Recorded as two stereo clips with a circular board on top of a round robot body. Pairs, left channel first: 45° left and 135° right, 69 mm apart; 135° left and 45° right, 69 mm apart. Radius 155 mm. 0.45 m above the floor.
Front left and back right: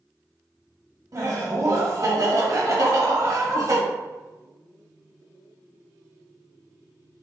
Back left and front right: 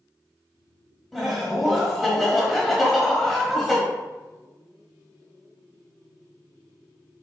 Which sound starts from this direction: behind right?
Laughter, at 1.1 s.